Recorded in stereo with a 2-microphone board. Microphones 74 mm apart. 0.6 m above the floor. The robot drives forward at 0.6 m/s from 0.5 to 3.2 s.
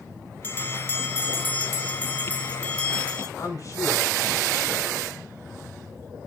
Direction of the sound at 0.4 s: 30° left (ahead or behind).